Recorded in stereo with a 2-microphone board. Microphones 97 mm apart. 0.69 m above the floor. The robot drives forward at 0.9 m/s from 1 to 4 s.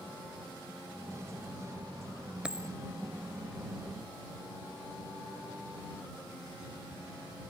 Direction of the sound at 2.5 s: 10° right (ahead or behind).